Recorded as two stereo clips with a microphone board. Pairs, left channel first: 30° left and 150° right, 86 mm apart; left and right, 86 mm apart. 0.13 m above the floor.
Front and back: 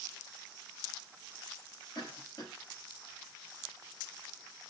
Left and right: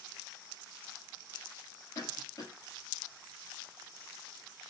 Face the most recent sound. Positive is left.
turn(degrees=50)